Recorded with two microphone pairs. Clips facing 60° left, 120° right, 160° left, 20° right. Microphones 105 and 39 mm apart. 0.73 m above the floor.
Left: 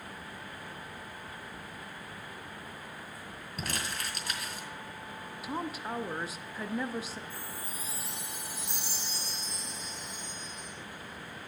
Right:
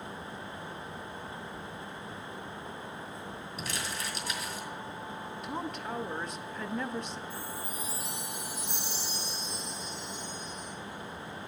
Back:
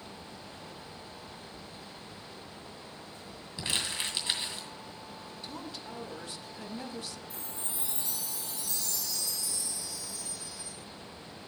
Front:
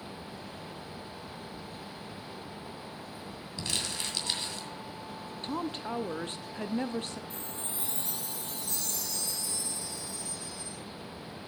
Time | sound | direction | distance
3.6 | crumpling | 95° left | 2 m
5.4 | a woman speaking | 30° right | 0.6 m
7.3 | a chime | 20° left | 3 m